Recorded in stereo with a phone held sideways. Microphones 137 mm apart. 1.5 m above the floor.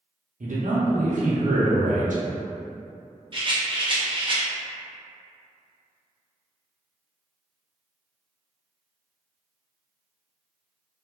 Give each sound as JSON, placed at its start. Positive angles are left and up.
{"t": 0.4, "sound": "a man speaking", "side_deg": -65, "distance_m": 0.8}
{"t": 3.3, "sound": "a rattle", "side_deg": -35, "distance_m": 0.5}